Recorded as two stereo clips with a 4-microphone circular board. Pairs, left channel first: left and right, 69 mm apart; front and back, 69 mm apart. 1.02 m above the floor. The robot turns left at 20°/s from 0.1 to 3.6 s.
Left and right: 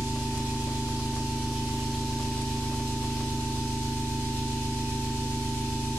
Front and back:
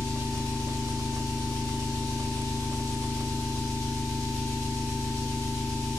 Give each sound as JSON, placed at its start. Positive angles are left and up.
{"t": 0.0, "sound": "an engine running", "azimuth_deg": -145, "distance_m": 1.2}